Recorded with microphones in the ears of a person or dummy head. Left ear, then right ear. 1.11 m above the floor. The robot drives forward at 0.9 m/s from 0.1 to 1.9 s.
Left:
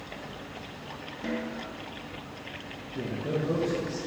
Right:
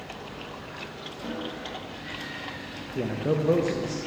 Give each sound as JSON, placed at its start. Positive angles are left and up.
{"t": 1.2, "sound": "a snare drum", "side_deg": 75, "distance_m": 1.0}
{"t": 3.0, "sound": "a man speaking", "side_deg": -45, "distance_m": 0.6}